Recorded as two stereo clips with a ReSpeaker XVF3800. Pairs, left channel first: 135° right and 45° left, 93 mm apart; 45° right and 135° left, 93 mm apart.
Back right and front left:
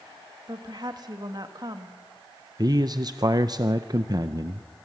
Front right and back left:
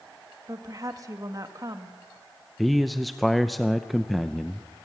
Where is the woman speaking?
85° left, 1.8 m.